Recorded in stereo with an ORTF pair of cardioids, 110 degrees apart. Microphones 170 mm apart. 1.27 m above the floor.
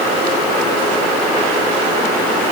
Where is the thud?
I don't hear a thud.